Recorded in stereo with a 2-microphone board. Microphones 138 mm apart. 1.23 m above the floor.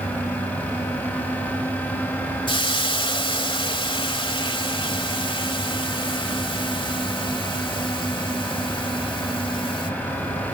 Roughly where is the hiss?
Left.